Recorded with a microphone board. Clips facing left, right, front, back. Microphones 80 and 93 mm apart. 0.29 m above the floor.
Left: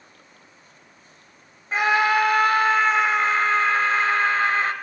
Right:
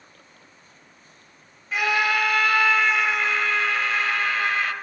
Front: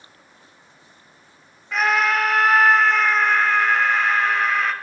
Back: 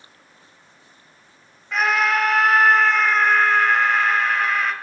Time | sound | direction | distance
1.7 | a scream | 90° left | 1.2 m